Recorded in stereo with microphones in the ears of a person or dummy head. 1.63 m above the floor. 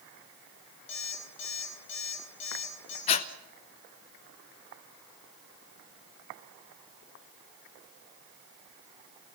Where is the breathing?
30° left (ahead or behind), 1.0 m.